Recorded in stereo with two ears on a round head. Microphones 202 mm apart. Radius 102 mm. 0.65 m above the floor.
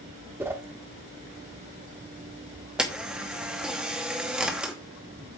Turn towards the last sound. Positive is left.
turn(degrees=-5)  # may be behind; listen again after turning